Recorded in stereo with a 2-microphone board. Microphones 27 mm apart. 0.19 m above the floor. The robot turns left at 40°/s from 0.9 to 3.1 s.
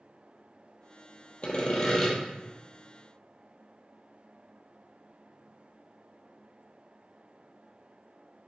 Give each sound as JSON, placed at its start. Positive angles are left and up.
{"t": 1.4, "sound": "sawing", "side_deg": 40, "distance_m": 0.9}